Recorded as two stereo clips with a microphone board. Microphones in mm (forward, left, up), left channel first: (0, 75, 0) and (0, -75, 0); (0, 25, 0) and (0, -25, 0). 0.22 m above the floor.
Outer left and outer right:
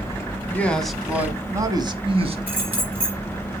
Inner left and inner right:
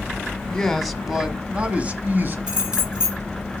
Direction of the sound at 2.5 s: 15° right (ahead or behind).